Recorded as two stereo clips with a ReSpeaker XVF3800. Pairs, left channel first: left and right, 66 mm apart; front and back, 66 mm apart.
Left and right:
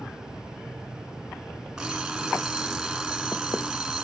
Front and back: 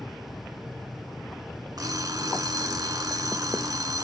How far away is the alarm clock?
About 2.5 m.